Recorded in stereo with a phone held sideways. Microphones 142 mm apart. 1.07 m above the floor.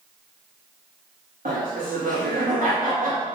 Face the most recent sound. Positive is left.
turn(degrees=-75)  # may be behind; listen again after turning